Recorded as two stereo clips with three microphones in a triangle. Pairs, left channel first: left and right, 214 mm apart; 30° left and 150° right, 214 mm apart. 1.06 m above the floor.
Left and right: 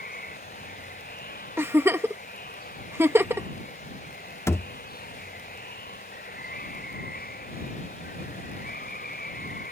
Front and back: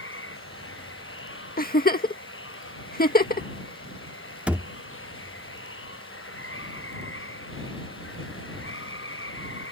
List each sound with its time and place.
0.0 s running water: 45° left
1.6 s a giggle: 10° right
4.5 s a thud: 140° left